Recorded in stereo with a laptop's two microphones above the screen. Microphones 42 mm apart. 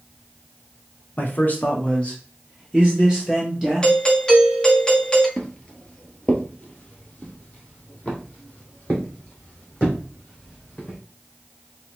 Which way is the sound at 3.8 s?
20° left (ahead or behind).